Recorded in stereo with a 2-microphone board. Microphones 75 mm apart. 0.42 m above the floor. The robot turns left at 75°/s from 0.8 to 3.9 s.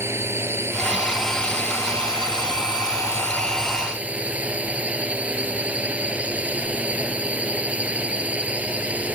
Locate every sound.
0.0 s a drone: 145° right; by 9.1 s 20° right